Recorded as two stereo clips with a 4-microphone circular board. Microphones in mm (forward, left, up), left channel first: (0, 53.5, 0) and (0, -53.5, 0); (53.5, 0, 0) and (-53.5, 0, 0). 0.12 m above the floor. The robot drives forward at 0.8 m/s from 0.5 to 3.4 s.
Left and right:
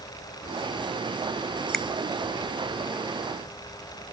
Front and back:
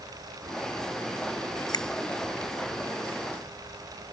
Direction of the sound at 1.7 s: 5° left.